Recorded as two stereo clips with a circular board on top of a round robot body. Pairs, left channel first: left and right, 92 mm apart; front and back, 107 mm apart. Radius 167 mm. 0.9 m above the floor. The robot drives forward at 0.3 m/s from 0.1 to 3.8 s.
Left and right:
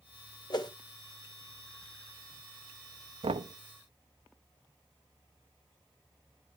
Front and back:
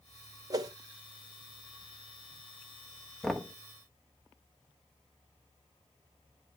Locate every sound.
0.5 s a whoosh: 125° left, 1.8 m; by 0.7 s 130° left, 1.8 m
3.2 s knocking: 85° right, 1.1 m; by 3.6 s 90° right, 1.1 m